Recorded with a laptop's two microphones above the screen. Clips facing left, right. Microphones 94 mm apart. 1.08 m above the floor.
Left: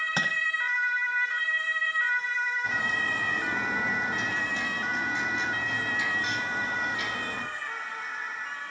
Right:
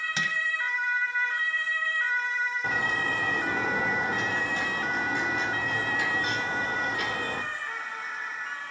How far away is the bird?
About 4 m.